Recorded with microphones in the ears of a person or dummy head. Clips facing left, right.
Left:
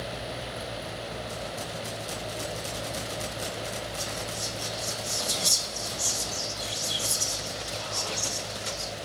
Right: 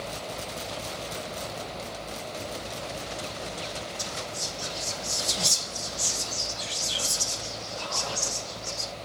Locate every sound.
4.0 s whispering: 85° right, 1.6 m